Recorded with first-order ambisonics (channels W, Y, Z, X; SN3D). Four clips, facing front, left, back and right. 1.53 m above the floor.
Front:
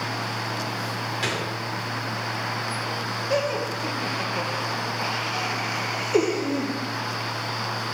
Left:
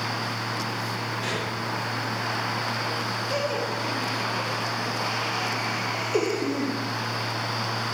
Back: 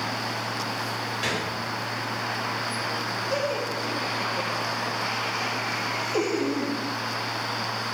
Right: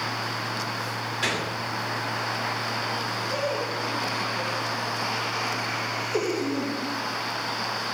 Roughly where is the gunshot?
Ahead right.